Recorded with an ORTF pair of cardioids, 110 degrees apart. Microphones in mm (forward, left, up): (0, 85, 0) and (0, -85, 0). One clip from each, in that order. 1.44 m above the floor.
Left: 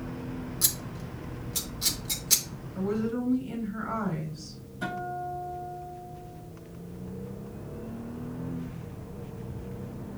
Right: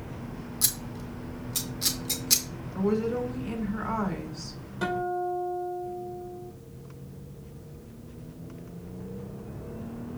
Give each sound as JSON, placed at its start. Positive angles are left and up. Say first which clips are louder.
{"t": 0.6, "sound": "scissors", "louder": "right 1 dB", "azimuth_deg": -15, "distance_m": 1.1}
{"t": 2.8, "sound": "a woman speaking", "louder": "right 3 dB", "azimuth_deg": -65, "distance_m": 3.5}
{"t": 4.8, "sound": "a guitar", "louder": "right 5 dB", "azimuth_deg": -65, "distance_m": 3.5}